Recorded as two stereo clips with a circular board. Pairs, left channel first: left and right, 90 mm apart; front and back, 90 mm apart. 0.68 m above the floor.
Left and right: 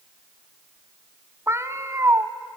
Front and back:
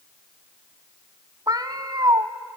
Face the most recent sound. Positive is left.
turn(degrees=-145)